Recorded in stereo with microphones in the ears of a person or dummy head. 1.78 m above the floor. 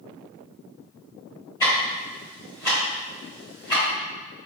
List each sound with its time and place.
1.6 s ticking: 15° left (ahead or behind), 1.7 m